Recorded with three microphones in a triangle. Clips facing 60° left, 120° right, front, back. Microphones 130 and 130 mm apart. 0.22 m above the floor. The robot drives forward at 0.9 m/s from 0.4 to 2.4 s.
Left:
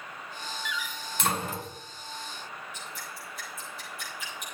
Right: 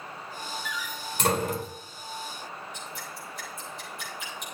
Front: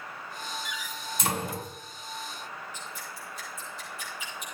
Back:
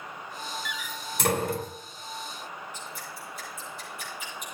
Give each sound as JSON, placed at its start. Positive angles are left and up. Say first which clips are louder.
{"t": 0.7, "sound": "a door slam", "louder": "right 1 dB, back 1 dB", "azimuth_deg": -160, "distance_m": 1.7}
{"t": 2.7, "sound": "dripping", "louder": "right 2 dB, back 1 dB", "azimuth_deg": 145, "distance_m": 7.0}